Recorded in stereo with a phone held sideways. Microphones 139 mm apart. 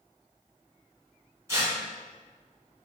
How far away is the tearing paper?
About 1.3 m.